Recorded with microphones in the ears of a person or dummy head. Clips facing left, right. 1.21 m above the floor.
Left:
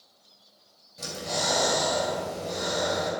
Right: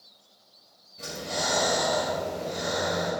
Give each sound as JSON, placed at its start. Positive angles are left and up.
{"t": 1.0, "sound": "breathing", "side_deg": 80, "distance_m": 3.0}